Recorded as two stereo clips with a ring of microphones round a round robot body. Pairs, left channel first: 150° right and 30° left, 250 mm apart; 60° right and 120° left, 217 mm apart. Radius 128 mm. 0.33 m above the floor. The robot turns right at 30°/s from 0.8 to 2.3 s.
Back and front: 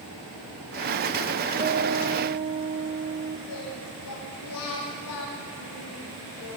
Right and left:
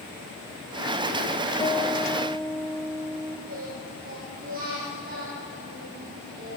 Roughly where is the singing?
Behind.